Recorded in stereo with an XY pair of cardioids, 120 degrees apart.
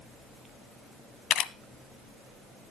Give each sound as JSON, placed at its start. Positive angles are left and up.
{"t": 1.3, "sound": "a camera shutter", "azimuth_deg": 65, "distance_m": 1.0}